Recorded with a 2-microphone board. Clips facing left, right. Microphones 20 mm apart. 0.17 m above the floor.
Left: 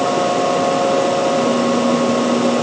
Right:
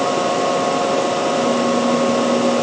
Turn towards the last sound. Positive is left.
No sound to turn to.